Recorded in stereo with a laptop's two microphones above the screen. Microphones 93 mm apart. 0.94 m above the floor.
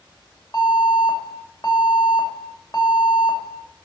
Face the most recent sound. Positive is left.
turn(degrees=45)  # may be behind; listen again after turning